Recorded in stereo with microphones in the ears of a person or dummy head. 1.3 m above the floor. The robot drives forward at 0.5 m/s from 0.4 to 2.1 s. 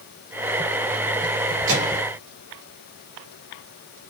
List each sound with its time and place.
1.7 s a microwave: 65° right (ahead or behind), 5 m